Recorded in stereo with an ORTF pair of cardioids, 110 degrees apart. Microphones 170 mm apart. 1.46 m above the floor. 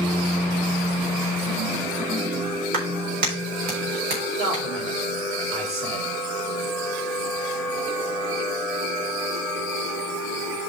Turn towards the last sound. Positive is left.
turn(degrees=-40)